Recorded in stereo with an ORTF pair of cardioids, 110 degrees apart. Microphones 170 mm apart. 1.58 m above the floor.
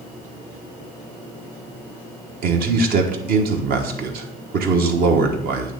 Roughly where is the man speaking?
Ahead right.